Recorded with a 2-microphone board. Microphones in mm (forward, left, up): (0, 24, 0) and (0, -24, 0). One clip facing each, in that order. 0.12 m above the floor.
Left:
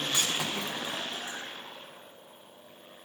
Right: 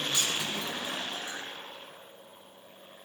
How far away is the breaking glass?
About 3.5 m.